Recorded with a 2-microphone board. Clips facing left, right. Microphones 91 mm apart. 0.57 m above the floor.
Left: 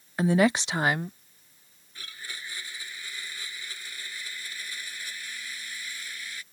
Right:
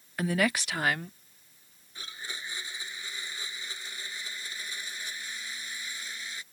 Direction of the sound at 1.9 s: 20° right (ahead or behind).